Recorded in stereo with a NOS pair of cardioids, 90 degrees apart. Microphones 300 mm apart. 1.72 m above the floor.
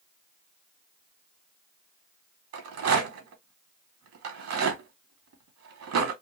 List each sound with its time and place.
2.5 s a rattle: 60° right, 2.5 m